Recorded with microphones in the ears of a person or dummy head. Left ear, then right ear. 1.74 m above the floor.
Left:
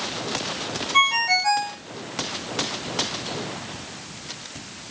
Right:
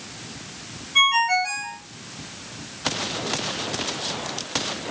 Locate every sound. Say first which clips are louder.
0.9 s a ringtone: right 1 dB; 35° left (ahead or behind), 1.2 m